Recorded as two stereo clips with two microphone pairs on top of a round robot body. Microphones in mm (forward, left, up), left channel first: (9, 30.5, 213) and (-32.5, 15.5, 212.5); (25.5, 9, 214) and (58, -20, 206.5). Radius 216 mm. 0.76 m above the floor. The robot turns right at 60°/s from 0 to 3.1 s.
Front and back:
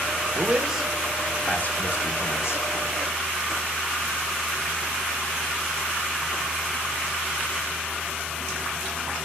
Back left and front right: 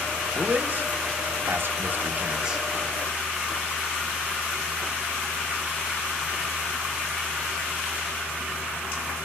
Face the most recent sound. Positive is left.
turn(degrees=60)